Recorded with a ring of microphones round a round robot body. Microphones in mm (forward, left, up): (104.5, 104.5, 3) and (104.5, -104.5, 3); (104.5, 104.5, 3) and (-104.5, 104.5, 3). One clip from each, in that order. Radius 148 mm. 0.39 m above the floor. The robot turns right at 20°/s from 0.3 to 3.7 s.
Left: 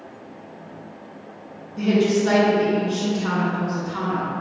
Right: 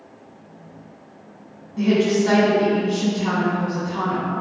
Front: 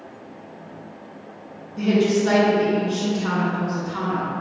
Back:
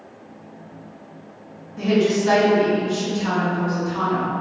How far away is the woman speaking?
About 1.3 m.